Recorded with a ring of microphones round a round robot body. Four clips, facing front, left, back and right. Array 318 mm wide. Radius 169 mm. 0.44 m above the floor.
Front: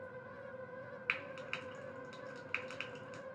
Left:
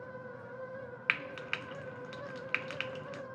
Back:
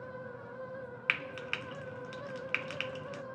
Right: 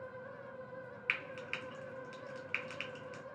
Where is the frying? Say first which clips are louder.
Left 5 dB, back 5 dB; 125° left, 0.6 m.